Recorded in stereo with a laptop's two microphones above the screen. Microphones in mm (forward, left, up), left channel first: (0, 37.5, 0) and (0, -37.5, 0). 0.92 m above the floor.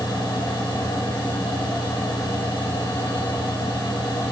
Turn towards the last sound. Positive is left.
turn(degrees=75)  # may be behind; listen again after turning